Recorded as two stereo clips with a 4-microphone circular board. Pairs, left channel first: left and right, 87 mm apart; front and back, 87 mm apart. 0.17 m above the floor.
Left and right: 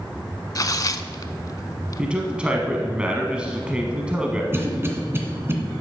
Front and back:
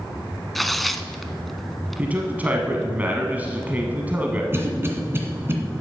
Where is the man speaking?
145° right, 1.1 m.